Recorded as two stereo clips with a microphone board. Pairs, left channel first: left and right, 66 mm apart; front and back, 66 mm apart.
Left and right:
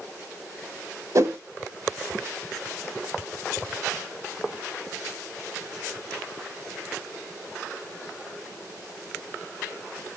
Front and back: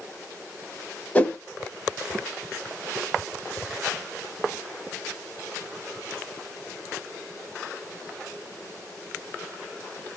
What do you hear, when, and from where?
1.1 s a whoosh: 65° right, 0.8 m